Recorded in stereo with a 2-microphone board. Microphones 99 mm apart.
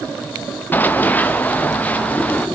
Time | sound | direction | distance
0.7 | running footsteps | 20° left (ahead or behind) | 1.0 m